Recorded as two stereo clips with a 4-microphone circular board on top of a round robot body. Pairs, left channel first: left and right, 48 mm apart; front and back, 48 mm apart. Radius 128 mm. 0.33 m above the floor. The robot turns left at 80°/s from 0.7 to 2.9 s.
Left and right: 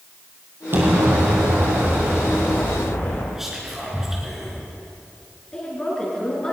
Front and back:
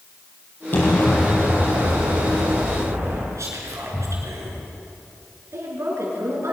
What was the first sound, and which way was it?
An explosion, 50° right.